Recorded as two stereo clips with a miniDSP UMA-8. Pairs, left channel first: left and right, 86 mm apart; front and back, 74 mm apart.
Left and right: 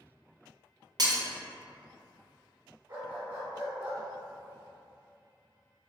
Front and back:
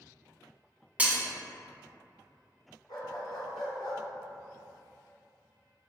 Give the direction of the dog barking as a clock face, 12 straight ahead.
1 o'clock.